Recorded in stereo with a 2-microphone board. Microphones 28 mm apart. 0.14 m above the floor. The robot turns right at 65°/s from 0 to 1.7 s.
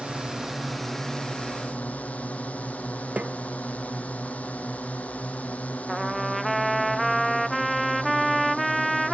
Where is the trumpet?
5° left (ahead or behind).